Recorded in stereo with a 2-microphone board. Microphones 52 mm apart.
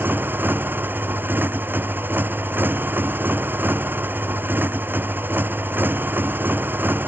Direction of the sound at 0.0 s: 40° right (ahead or behind).